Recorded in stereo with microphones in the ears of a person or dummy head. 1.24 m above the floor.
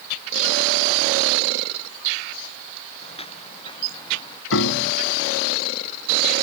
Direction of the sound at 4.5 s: 65° left (ahead or behind).